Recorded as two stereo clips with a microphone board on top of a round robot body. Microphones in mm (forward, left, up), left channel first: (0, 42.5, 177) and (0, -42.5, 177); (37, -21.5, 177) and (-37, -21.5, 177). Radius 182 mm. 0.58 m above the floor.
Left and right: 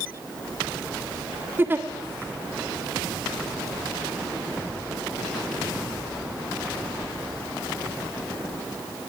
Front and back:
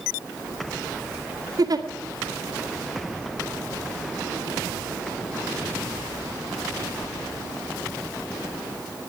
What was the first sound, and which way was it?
A giggle, 155° right.